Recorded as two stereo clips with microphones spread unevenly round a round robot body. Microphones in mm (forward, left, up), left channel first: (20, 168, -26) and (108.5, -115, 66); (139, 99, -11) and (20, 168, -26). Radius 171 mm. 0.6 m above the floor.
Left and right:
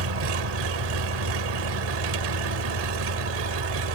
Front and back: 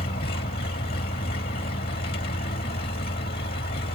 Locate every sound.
0.0 s an engine running: 75° right